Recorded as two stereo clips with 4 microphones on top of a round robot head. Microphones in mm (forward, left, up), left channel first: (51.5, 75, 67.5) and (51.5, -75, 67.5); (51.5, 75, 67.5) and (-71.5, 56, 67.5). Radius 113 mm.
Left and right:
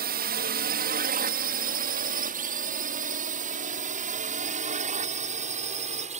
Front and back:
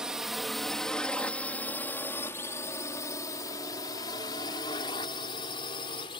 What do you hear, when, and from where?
0.0 s a drone: 85° right; by 6.2 s 50° right